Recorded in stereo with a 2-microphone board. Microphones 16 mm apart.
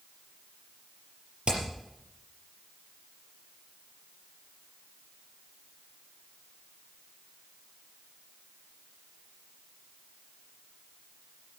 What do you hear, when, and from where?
1.5 s hammering: 75° right (ahead or behind), 5 m